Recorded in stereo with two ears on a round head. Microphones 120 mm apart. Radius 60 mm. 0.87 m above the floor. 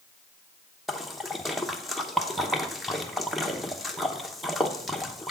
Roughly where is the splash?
Centre.